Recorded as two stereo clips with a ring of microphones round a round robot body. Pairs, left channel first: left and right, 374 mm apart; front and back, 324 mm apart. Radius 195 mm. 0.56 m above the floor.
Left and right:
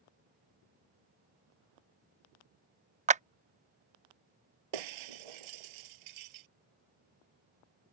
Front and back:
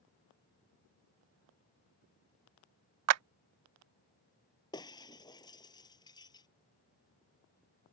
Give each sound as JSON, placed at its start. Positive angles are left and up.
{"t": 3.1, "sound": "a clap", "azimuth_deg": -160}
{"t": 4.7, "sound": "breaking glass", "azimuth_deg": -80}